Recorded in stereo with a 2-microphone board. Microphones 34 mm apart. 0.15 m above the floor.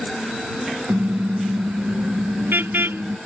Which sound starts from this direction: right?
A car horn, at 0.9 s.